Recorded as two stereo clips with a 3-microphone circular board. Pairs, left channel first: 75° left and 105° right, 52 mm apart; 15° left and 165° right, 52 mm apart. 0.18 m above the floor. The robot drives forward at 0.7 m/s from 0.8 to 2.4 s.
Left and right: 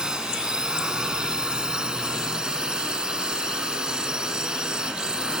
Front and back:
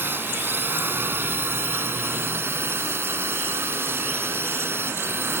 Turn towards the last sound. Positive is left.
turn(degrees=-175)